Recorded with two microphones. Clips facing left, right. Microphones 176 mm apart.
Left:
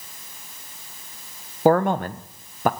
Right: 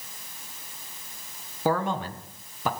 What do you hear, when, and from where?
1.6 s a man speaking: 55° left (ahead or behind), 0.8 m